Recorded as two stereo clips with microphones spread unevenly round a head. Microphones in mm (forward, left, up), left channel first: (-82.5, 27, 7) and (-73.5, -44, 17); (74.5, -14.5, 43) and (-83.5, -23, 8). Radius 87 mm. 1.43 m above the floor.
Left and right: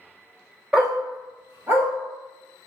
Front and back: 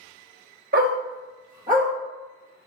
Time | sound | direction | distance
0.7 | a dog barking | 155° right | 1.5 m